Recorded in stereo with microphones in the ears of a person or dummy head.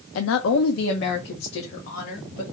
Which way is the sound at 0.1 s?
75° left (ahead or behind).